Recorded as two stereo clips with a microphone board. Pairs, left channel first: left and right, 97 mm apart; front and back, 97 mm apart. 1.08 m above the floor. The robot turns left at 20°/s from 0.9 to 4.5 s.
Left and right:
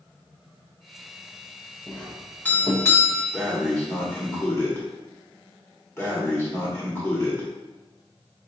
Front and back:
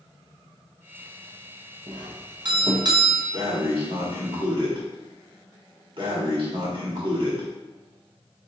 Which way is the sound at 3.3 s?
175° left.